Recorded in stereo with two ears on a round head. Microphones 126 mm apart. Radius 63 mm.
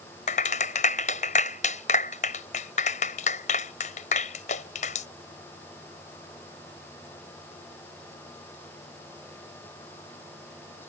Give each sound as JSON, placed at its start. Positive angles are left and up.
{"t": 0.3, "sound": "a clap", "side_deg": 55}